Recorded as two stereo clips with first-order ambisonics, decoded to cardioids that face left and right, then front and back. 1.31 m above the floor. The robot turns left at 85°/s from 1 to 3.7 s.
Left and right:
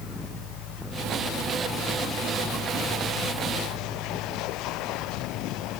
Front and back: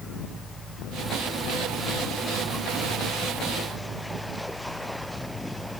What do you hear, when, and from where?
Only background noise.